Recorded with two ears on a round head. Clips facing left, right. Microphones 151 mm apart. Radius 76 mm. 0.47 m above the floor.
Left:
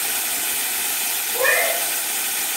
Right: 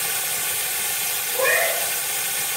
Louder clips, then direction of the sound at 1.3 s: Left 1 dB; centre (ahead or behind).